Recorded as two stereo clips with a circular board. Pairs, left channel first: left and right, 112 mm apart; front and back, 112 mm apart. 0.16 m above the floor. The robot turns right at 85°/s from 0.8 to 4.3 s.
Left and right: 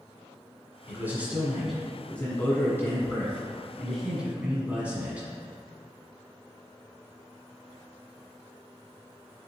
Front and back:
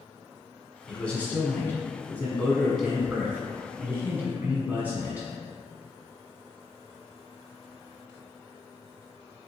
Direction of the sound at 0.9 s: 75° right.